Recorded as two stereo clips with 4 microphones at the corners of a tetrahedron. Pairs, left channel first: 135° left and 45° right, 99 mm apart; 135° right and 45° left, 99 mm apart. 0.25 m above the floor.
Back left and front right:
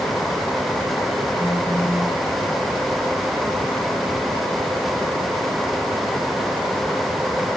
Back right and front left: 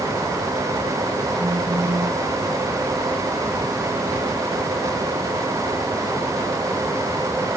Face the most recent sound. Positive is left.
turn(degrees=80)